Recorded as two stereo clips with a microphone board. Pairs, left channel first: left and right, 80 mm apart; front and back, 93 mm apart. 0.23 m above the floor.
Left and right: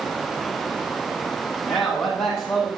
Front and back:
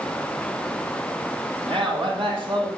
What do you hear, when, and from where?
1.7 s a man speaking: 175° left, 7 m